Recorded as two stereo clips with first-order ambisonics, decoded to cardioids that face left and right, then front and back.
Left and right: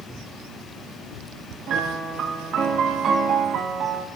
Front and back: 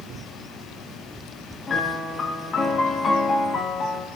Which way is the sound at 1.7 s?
55° right.